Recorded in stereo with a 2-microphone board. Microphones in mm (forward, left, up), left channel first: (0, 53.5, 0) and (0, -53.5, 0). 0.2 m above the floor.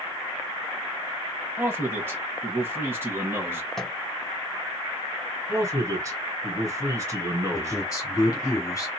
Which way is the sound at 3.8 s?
5° left (ahead or behind).